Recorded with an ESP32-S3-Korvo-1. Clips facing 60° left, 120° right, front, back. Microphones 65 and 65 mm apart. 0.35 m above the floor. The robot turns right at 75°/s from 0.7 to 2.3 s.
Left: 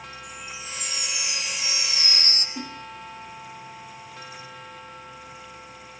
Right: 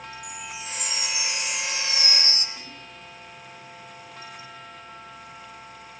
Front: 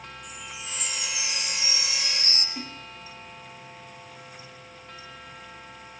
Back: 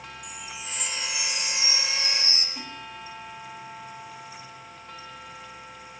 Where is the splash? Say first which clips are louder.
Left 7 dB, front 1 dB; 65° left, 5.5 m.